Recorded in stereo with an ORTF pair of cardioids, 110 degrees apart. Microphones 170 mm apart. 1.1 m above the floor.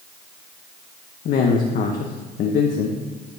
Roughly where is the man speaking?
Ahead left.